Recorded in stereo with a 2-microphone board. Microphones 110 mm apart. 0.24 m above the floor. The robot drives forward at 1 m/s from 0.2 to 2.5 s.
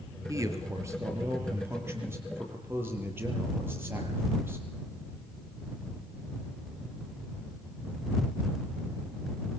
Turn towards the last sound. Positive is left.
turn(degrees=-20)  # may be behind; listen again after turning